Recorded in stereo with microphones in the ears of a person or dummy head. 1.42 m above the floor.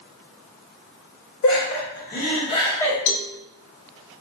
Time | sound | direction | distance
1.4 | laughter | 75° left (ahead or behind) | 1.4 m
3.1 | a cowbell | 70° left (ahead or behind) | 0.5 m